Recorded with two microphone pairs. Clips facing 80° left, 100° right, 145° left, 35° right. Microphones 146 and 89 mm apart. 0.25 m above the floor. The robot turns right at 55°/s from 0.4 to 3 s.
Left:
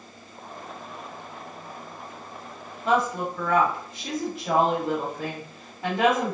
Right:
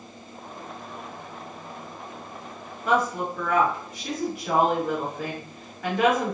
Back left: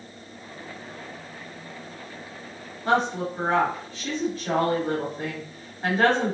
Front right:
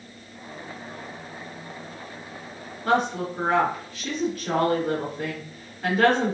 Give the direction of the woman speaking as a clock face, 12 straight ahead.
8 o'clock.